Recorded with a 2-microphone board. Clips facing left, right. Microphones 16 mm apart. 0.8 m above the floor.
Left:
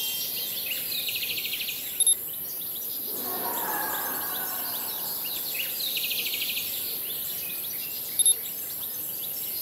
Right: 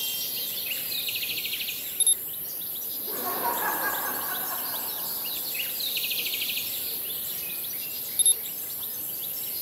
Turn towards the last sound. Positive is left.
turn(degrees=-10)  # may be behind; listen again after turning